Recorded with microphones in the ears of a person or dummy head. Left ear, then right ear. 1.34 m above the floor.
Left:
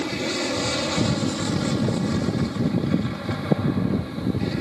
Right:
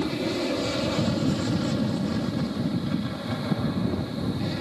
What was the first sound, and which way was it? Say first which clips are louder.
An aircraft: left 2 dB; 40° left (ahead or behind).